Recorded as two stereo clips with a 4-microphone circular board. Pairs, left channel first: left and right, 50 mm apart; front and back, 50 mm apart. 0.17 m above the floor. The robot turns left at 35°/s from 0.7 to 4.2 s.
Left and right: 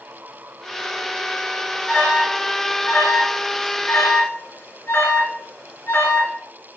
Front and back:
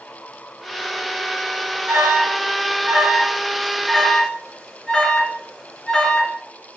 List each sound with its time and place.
1.9 s an alarm: 155° left, 2.5 m; by 6.3 s 75° left, 2.5 m